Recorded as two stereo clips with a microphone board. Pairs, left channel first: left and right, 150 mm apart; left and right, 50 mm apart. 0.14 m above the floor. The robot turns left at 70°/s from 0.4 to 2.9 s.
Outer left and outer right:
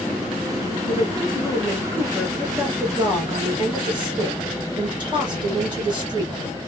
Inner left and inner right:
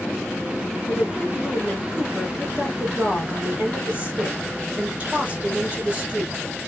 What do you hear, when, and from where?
0.9 s a woman speaking: 85° left, 2 m; by 6.4 s 55° right, 2 m